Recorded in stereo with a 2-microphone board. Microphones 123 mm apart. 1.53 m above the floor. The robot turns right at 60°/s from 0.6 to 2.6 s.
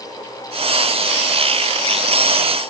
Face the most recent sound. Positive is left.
No sound to turn to.